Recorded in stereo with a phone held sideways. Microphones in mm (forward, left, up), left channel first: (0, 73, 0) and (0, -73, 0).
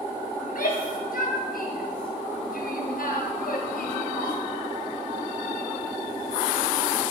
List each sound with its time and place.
0.4 s a shout: 75° left (ahead or behind), 5.5 m